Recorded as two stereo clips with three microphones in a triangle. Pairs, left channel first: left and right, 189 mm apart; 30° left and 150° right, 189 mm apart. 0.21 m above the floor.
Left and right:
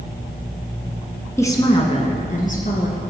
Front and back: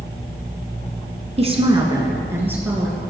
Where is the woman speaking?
165° left, 1.9 m; by 3.0 s 125° left, 3.5 m.